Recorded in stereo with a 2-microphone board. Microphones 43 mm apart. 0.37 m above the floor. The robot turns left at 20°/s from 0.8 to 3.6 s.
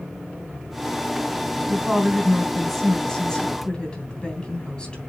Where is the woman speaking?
165° right, 3 m; by 5.0 s 155° left, 3 m.